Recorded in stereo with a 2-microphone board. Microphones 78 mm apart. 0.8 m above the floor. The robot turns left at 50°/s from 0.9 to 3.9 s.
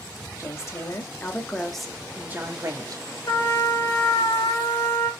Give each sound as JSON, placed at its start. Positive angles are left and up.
{"t": 0.4, "sound": "a woman speaking", "azimuth_deg": 45, "distance_m": 1.6}
{"t": 3.3, "sound": "a trumpet", "azimuth_deg": 115, "distance_m": 3.5}